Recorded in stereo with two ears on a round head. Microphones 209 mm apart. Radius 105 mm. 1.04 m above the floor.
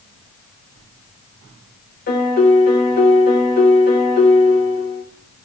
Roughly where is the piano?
Left.